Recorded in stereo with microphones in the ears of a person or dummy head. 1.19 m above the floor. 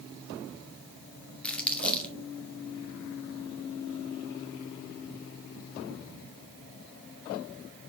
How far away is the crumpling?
About 1.4 m.